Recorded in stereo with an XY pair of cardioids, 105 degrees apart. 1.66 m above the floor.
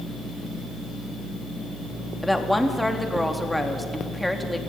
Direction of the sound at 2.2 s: Straight ahead.